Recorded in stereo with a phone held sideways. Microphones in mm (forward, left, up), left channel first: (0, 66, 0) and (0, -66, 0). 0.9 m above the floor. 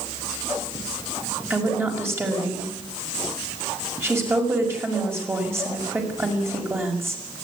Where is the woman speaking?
20° right (ahead or behind), 5.5 m.